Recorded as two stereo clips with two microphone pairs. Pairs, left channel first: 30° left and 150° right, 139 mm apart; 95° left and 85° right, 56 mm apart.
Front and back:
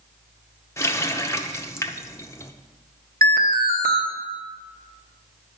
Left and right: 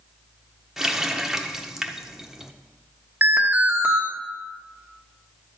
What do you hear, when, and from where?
0.8 s a running tap: 10° right, 0.7 m
3.2 s an alarm: 150° right, 1.2 m